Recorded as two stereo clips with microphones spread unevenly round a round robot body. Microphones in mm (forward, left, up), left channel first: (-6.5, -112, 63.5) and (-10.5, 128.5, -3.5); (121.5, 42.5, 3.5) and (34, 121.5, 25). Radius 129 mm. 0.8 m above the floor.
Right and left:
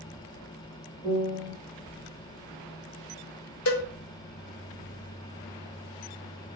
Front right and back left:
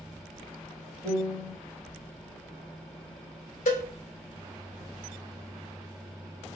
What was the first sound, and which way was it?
A piano, 130° right.